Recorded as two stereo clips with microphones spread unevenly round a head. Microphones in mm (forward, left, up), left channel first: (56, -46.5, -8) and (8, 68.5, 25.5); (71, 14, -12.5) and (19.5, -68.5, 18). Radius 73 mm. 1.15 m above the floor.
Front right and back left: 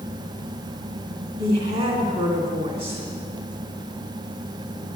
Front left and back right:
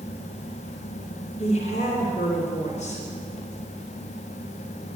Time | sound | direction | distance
1.4 | a woman speaking | 85° left | 2.5 m